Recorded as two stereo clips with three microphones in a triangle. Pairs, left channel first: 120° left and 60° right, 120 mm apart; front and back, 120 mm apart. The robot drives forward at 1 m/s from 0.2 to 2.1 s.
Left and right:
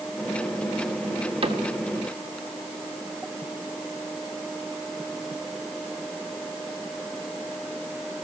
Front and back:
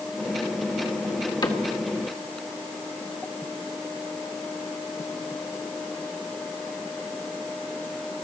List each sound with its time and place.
1.4 s a cupboard door: 45° right, 1.6 m; by 1.6 s 50° right, 1.4 m